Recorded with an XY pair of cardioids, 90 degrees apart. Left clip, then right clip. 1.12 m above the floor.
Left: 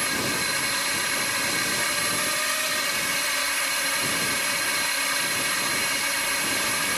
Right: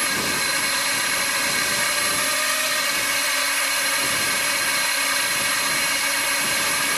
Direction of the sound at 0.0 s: 35° right.